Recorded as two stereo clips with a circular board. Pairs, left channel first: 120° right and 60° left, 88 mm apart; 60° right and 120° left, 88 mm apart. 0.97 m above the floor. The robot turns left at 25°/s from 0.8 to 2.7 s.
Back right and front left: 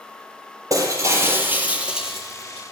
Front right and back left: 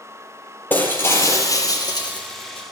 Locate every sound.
0.7 s breaking glass: 10° left, 6.5 m; by 2.6 s 40° right, 6.5 m